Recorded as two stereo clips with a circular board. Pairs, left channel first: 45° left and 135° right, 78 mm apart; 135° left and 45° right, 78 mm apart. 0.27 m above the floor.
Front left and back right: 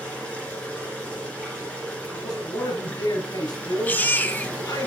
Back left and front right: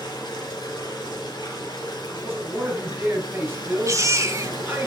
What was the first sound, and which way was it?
Running water, 120° left.